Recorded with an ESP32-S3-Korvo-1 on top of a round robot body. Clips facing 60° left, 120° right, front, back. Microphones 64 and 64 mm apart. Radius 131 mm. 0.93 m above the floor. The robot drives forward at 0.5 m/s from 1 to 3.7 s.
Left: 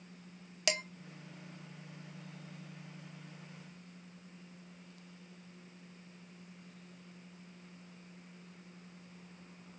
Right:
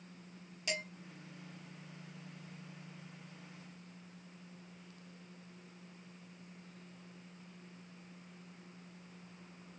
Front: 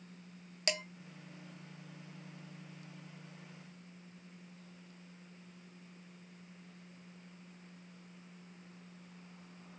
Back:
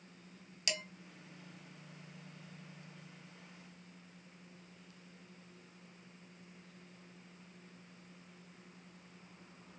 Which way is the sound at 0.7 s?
50° left.